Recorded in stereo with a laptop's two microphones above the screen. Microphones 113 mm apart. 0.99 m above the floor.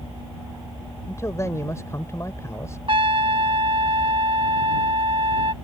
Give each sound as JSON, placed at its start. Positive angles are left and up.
{"t": 1.1, "sound": "a man speaking", "side_deg": 25}
{"t": 2.9, "sound": "a trumpet", "side_deg": -50}